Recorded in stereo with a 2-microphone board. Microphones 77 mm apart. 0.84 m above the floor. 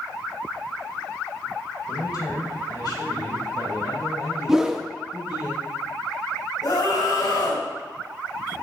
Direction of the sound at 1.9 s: 55° left (ahead or behind).